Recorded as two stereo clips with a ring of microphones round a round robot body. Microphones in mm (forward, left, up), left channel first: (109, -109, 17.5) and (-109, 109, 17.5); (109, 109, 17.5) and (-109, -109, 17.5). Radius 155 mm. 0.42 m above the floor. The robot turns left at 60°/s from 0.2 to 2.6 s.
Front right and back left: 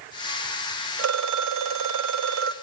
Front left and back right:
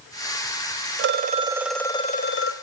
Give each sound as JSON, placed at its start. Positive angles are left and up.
{"t": 1.0, "sound": "a phone ringing", "azimuth_deg": 180, "distance_m": 1.5}